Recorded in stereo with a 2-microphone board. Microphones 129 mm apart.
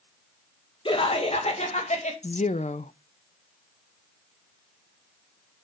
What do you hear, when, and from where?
0.8 s laughter: 40° left (ahead or behind), 2.0 m; by 2.1 s 65° left (ahead or behind), 2.5 m
2.2 s a woman speaking: 65° left (ahead or behind), 0.6 m